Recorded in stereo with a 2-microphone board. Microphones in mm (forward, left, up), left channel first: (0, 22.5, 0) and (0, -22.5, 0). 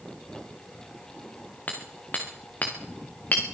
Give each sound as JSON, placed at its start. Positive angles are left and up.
{"t": 1.7, "sound": "hammering", "side_deg": 35, "distance_m": 3.5}